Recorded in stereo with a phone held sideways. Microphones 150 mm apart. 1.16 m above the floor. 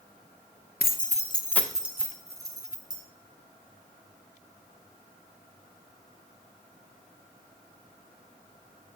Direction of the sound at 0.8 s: 80° left.